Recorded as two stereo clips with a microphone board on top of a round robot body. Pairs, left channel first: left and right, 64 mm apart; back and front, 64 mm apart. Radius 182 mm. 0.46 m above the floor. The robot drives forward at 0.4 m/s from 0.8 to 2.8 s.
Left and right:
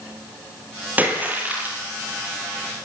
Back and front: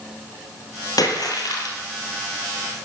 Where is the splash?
155° right, 4 m.